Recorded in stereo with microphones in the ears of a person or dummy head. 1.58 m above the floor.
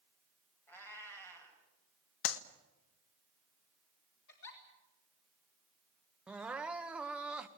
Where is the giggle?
60° left (ahead or behind), 4 m.